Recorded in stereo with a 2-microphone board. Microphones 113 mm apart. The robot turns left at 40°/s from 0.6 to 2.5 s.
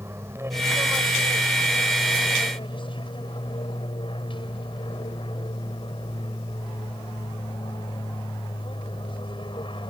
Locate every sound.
0.0 s an aircraft: 155° right; by 9.9 s 130° left